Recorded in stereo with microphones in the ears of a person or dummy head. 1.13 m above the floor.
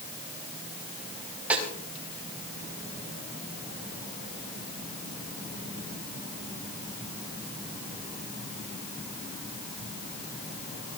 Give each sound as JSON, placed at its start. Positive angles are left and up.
{"t": 1.5, "sound": "a snare drum", "side_deg": -10, "distance_m": 5.0}